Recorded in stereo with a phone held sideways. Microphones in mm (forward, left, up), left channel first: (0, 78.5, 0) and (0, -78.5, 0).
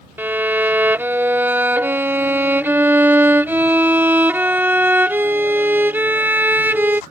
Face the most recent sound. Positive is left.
turn(degrees=-10)  # may be behind; listen again after turning